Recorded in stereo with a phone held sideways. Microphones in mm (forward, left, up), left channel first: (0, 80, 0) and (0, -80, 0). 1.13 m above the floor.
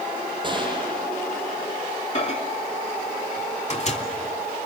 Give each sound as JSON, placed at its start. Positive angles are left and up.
{"t": 0.4, "sound": "a gunshot", "side_deg": -30, "distance_m": 8.0}
{"t": 2.1, "sound": "a microwave", "side_deg": 45, "distance_m": 3.0}